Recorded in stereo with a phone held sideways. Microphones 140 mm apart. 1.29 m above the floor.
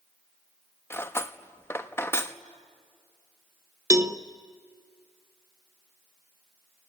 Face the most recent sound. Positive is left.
turn(degrees=-25)  # may be behind; listen again after turning